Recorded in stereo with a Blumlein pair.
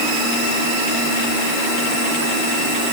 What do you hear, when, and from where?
Only background noise.